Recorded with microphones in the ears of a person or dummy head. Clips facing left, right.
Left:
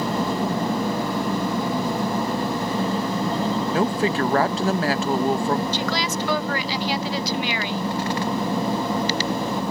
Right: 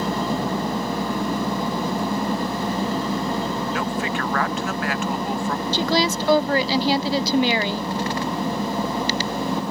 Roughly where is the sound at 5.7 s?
Right.